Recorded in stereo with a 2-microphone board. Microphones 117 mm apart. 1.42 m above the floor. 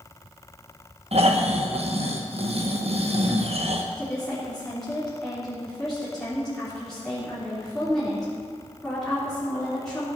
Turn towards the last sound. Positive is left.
turn(degrees=5)  # may be behind; listen again after turning